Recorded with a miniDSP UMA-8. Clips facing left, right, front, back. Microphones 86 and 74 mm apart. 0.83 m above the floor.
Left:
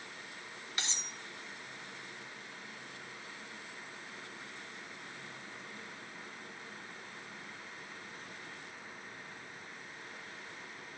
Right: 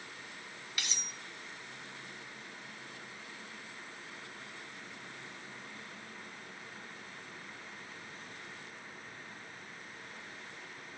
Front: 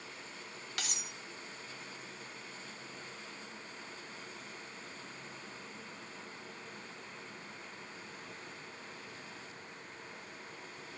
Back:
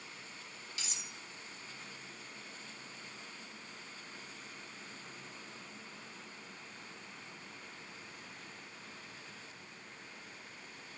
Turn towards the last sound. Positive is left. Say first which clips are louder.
# left 1 dB, front 5 dB
turn(degrees=25)